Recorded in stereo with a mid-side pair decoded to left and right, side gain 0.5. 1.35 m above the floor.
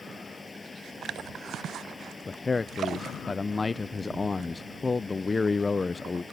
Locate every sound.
0.0 s a fan: 25° left
2.3 s a man speaking: 25° left